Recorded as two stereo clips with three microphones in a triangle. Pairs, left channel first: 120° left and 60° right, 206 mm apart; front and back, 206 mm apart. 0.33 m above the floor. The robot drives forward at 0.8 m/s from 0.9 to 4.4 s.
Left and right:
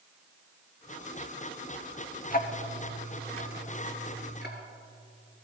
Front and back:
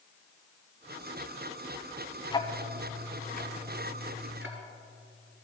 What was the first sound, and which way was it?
Ticking, 65° left.